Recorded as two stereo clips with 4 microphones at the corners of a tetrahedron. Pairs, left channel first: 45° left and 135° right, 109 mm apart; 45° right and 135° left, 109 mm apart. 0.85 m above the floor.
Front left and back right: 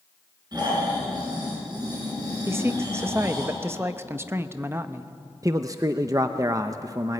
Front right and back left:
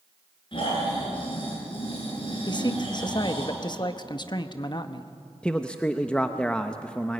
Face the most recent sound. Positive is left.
turn(degrees=-115)